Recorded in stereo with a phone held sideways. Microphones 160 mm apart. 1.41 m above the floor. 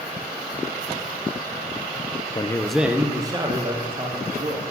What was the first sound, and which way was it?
A man speaking, 30° left (ahead or behind).